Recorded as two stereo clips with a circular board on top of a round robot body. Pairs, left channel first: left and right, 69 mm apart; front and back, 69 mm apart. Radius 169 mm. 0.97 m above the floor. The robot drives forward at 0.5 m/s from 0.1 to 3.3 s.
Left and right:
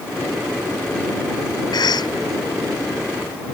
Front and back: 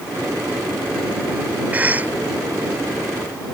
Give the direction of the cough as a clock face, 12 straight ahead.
8 o'clock.